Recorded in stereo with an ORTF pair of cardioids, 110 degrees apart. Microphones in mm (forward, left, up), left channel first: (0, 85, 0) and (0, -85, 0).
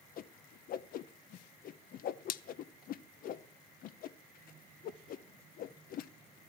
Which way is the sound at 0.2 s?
60° left.